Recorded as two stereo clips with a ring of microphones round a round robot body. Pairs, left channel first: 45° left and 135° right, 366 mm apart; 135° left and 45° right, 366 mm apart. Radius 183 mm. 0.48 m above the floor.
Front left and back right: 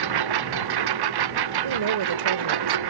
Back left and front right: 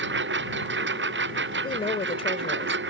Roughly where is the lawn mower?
Right.